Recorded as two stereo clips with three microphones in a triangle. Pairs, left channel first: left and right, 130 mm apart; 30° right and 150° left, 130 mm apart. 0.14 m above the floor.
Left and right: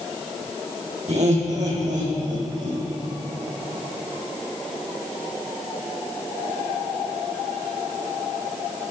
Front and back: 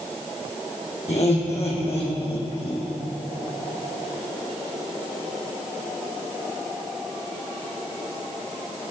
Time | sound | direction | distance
1.1 | laughter | 60° right | 6 m